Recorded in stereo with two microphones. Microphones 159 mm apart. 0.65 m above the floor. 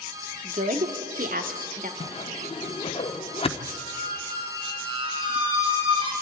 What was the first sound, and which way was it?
A woman speaking, 50° right (ahead or behind).